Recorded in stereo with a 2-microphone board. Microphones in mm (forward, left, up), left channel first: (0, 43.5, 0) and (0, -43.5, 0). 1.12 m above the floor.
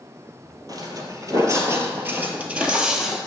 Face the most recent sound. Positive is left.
turn(degrees=-5)  # may be behind; listen again after turning